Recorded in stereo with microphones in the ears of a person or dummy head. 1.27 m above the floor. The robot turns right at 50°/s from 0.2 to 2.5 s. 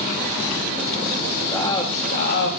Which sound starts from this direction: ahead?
A man speaking, at 1.5 s.